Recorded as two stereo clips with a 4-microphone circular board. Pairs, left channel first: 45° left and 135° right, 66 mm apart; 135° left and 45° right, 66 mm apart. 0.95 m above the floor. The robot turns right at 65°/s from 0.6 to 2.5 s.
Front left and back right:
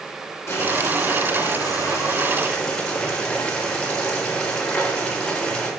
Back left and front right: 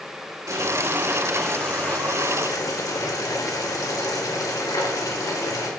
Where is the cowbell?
I don't hear a cowbell.